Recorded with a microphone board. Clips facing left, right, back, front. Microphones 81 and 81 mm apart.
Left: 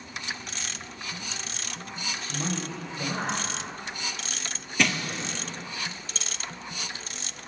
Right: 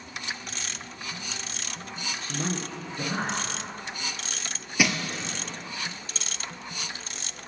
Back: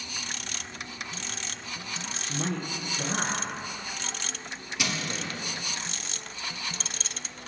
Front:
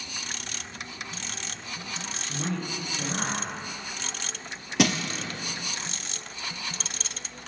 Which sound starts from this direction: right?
A man speaking, at 2.2 s.